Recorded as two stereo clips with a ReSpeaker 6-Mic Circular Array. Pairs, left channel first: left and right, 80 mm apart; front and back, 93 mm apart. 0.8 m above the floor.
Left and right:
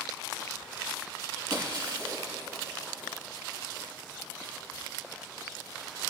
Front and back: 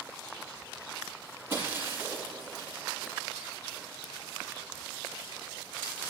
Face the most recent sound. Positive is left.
turn(degrees=-115)